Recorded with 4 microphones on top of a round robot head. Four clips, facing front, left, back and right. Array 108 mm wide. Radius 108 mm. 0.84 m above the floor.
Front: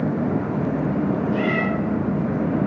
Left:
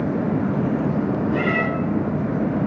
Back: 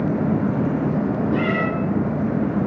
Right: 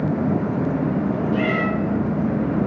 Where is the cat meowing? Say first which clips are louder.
Even, back 1 dB; 135° left, 3 m.